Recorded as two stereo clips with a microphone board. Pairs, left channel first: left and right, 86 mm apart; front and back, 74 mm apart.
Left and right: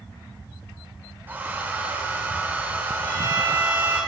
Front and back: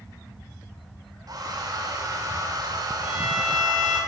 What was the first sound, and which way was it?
A hair dryer, 160° right.